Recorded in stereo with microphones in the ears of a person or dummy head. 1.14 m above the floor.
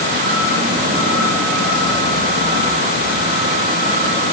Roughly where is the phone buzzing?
I don't hear a phone buzzing.